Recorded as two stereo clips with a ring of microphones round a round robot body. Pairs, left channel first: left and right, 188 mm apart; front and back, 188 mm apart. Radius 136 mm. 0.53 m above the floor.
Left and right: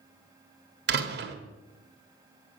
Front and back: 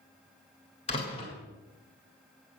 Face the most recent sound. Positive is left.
turn(degrees=-65)